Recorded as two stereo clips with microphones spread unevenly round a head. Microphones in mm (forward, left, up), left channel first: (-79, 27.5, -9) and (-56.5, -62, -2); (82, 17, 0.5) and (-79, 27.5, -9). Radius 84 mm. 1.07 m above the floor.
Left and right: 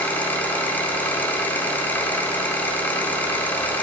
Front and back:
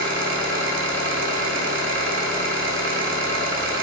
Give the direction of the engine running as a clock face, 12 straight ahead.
6 o'clock.